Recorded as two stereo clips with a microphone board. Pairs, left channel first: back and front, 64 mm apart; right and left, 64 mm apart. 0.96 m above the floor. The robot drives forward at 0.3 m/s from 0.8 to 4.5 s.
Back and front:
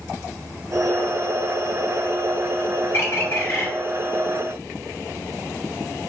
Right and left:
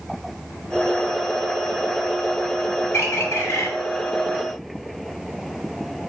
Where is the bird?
135° right, 1.8 m; by 3.7 s 140° right, 2.0 m.